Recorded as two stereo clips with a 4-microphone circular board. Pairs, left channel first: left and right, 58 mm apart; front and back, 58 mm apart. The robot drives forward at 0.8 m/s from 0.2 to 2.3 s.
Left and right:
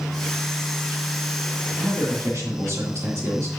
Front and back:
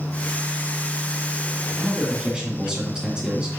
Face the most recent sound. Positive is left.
turn(degrees=-105)